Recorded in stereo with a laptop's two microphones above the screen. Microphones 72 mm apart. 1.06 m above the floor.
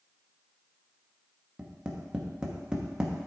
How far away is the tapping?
About 0.8 m.